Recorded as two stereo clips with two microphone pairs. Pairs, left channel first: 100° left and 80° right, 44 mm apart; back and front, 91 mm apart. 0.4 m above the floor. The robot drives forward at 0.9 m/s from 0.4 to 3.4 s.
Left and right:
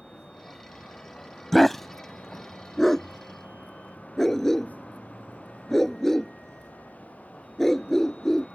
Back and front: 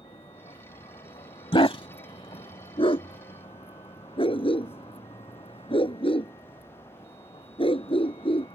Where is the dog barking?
175° right; by 8.5 s straight behind.